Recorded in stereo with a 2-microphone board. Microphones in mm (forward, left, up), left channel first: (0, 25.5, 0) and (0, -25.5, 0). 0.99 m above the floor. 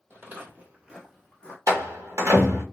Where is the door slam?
85° right, 0.8 m.